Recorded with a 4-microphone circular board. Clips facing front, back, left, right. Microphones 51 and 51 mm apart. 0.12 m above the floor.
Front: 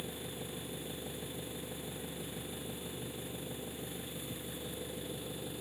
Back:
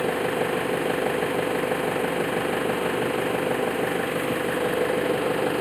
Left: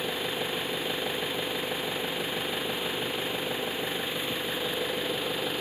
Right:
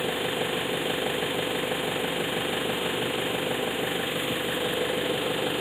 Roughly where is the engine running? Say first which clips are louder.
Back 20 dB, right 4 dB; behind.